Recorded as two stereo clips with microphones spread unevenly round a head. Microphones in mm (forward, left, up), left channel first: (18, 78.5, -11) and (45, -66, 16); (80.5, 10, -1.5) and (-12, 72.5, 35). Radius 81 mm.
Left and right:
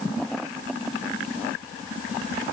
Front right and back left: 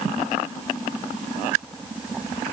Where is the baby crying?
No baby crying in this recording.